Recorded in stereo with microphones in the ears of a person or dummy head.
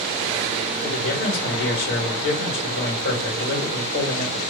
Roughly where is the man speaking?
Left.